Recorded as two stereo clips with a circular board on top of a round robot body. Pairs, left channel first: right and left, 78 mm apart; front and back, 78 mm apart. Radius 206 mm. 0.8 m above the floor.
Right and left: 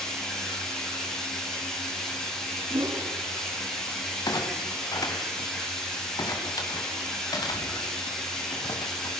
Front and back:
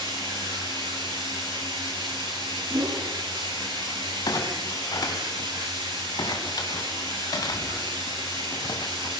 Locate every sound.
0.0 s running water: 175° right, 9.5 m
2.7 s a whoosh: 135° left, 3 m
4.3 s a clunk: 45° right, 2 m